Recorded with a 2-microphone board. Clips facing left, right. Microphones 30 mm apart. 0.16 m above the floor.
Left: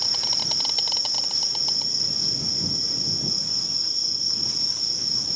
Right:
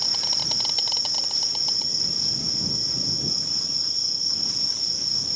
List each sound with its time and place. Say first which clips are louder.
0.0 s an insect: even; centre (ahead or behind)